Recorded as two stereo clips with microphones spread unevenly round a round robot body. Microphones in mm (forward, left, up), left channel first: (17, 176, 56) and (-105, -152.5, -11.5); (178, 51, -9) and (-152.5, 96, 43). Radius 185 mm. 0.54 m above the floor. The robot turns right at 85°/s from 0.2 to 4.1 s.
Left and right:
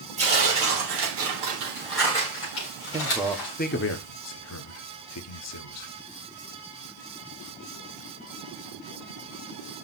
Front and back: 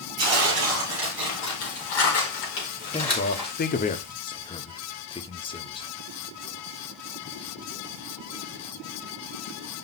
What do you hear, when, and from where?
0.2 s tearing paper: straight behind, 4.5 m; by 3.5 s 105° left, 4.5 m
2.9 s a man speaking: 60° right, 0.9 m; by 5.9 s 40° left, 0.9 m